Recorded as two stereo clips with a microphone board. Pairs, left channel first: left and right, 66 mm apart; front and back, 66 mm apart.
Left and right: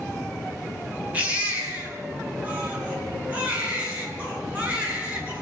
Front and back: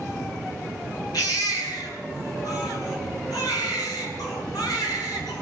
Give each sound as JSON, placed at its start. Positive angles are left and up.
{"t": 1.1, "sound": "a baby crying", "azimuth_deg": -20, "distance_m": 8.5}